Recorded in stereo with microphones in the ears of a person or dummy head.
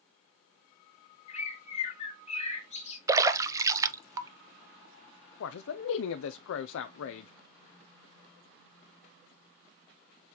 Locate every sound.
1.3 s a bird: 30° left (ahead or behind), 1.3 m
3.1 s a splash: 15° right (ahead or behind), 0.7 m
5.4 s a man speaking: 90° left, 0.6 m